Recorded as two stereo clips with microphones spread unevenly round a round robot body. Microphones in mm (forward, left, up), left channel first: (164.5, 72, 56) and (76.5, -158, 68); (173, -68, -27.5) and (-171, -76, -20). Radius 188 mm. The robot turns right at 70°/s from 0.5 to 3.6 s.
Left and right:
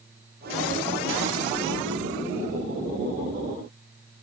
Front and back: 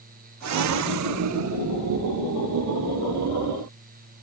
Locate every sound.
Only background noise.